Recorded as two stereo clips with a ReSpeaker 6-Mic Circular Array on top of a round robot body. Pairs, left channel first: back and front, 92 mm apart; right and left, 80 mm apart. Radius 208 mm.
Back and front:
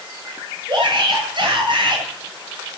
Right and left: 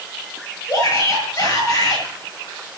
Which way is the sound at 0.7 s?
35° right.